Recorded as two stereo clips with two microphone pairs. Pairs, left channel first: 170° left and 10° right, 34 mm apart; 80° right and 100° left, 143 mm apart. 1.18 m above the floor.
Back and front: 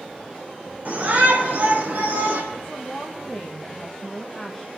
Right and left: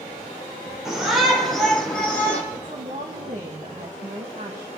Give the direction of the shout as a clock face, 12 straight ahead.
12 o'clock.